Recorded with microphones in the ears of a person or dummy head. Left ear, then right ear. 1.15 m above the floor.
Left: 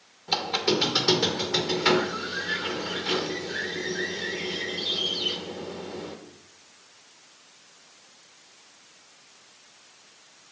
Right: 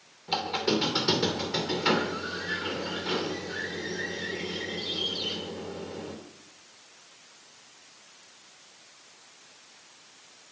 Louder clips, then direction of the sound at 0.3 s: Left 3 dB; 20° left (ahead or behind).